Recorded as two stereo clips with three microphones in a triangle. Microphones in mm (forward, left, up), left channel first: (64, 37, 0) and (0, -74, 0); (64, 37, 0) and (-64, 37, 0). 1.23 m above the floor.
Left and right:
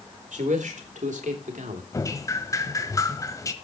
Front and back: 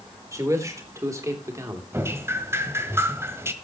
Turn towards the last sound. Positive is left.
turn(degrees=115)